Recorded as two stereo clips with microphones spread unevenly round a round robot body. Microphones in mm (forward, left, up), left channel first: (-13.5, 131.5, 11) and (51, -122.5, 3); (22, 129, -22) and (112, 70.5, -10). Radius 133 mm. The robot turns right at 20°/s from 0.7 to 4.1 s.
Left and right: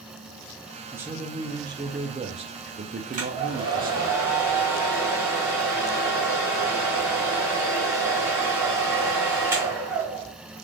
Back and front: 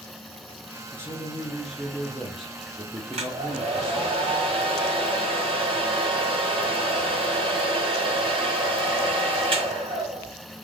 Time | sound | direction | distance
0.9 | a man speaking | 150° right | 0.6 m
3.1 | a hair dryer | 15° right | 1.7 m